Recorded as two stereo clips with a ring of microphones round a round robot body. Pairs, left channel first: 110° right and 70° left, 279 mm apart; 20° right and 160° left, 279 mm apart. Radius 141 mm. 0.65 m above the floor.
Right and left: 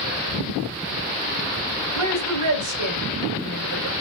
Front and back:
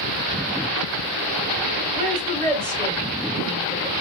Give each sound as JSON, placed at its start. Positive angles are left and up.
{"t": 1.9, "sound": "a woman speaking", "azimuth_deg": 90, "distance_m": 2.5}